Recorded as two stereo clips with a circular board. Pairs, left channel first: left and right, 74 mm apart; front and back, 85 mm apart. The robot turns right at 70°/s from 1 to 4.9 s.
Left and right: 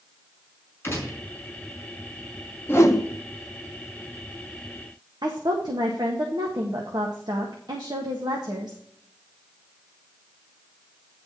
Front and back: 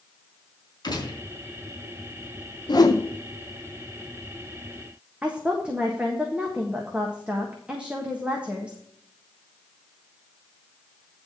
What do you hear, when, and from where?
0.8 s a gunshot: 30° left, 3.5 m; by 1.2 s 45° left, 3.5 m
2.7 s a whoosh: 30° left, 1.1 m; by 3.0 s 55° left, 1.1 m
5.2 s a woman speaking: 105° right, 1.5 m